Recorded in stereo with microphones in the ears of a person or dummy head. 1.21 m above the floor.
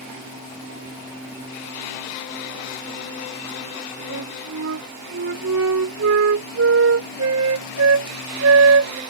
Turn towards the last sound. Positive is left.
turn(degrees=-90)